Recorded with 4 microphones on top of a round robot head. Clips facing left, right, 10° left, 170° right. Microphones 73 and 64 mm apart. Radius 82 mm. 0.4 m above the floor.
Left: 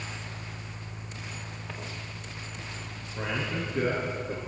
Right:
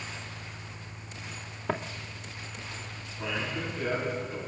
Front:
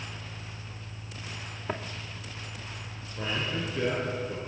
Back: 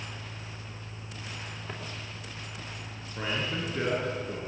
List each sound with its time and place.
1.7 s footsteps: 65° right, 2.5 m
3.2 s a man speaking: 135° left, 8 m